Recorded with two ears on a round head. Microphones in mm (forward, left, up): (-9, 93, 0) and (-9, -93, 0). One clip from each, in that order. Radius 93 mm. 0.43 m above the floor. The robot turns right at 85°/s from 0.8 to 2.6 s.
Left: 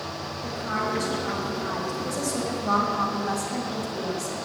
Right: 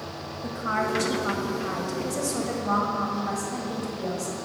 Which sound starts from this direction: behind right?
A woman speaking, at 0.4 s.